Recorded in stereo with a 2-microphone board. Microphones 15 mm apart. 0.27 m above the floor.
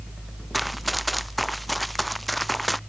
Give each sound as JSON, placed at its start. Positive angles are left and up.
{"t": 0.5, "sound": "running footsteps", "side_deg": -5}